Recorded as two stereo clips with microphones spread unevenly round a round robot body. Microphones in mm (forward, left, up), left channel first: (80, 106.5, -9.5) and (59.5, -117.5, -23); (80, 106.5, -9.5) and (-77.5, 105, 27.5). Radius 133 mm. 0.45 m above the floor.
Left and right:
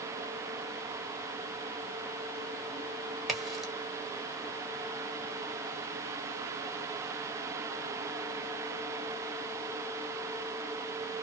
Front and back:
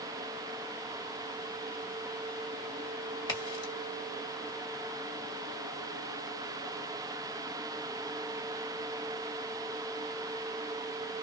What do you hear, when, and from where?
3.3 s a crack: 10° right, 1.4 m